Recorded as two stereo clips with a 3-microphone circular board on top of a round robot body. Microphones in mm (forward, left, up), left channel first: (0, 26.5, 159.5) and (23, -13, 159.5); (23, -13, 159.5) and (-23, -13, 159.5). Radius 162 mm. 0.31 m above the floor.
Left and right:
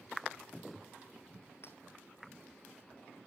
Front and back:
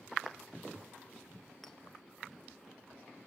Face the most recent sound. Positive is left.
turn(degrees=85)